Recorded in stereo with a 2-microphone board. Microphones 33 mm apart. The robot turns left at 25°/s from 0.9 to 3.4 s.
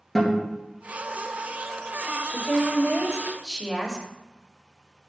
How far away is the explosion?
No explosion in this recording.